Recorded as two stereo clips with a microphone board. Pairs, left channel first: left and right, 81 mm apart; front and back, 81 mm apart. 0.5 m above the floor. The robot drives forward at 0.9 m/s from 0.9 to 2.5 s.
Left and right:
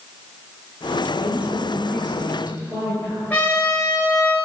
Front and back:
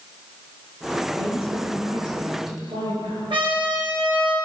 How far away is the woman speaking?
About 9 m.